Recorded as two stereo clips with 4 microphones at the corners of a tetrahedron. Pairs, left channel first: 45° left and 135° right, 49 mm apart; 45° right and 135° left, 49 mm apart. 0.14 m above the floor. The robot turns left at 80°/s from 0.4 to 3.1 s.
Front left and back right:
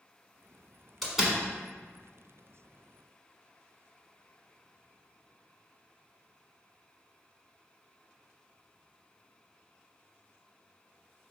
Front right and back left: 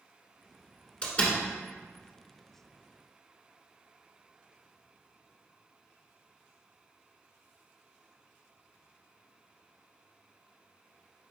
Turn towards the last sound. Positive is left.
turn(degrees=150)